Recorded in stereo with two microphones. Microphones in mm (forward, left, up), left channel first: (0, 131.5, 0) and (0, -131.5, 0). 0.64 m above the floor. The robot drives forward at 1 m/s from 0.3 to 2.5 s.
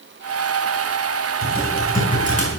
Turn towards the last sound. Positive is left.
turn(degrees=25)  # may be behind; listen again after turning